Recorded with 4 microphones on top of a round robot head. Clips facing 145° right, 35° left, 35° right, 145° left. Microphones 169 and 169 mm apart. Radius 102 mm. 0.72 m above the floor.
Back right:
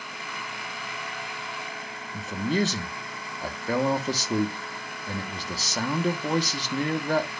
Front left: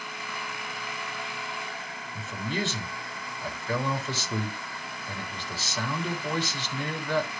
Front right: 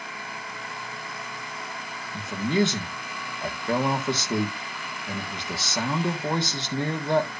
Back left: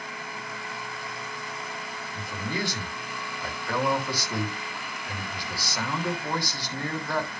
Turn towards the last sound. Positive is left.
turn(degrees=-100)